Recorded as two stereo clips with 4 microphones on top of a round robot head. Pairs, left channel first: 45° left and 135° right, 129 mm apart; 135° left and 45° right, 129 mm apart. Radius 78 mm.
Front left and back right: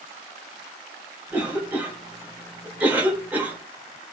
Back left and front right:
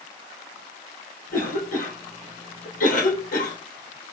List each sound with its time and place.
1.3 s a cough: 150° left, 3 m